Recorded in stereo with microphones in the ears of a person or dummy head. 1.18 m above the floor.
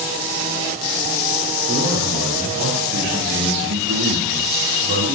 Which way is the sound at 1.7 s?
70° right (ahead or behind).